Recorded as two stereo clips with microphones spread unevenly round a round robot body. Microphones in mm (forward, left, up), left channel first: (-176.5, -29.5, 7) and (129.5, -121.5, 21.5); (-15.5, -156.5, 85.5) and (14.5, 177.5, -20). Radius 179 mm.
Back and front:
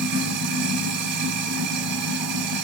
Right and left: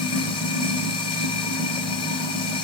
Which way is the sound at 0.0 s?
20° right.